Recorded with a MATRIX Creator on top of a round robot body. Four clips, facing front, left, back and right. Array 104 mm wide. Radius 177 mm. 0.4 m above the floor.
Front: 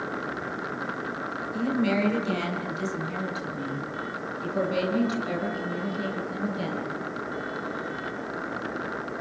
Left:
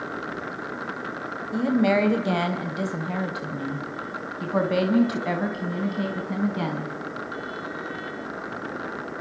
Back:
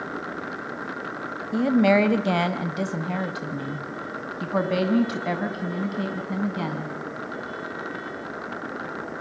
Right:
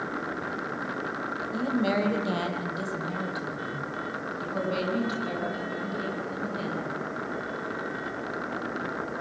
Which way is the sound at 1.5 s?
160° left.